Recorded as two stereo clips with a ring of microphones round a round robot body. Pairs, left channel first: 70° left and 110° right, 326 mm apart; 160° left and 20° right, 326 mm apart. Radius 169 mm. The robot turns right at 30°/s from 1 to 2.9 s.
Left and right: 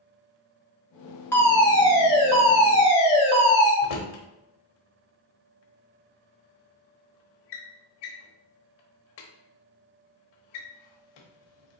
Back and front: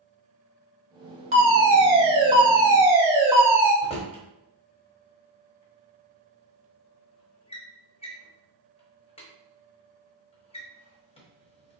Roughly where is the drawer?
Left.